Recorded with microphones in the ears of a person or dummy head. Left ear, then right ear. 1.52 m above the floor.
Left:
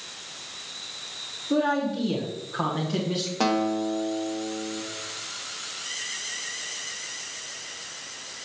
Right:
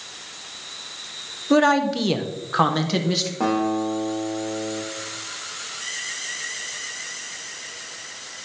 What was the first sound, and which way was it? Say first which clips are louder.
A man speaking: right 7 dB; 70° right (ahead or behind).